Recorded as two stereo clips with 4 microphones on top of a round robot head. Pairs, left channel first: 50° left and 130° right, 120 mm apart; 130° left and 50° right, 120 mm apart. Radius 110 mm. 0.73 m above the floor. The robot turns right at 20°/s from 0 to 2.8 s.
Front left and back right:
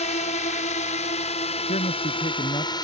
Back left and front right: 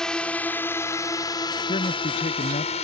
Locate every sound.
0.0 s a drone: 45° left; by 2.9 s 105° left
1.7 s a man speaking: 85° left; by 2.8 s 105° left